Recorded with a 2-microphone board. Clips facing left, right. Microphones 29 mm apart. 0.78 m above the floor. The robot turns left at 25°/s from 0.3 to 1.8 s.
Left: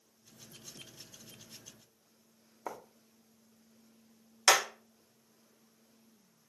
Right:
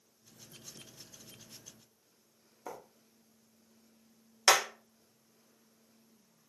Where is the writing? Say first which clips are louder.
Left 3 dB; 25° left (ahead or behind), 0.5 m.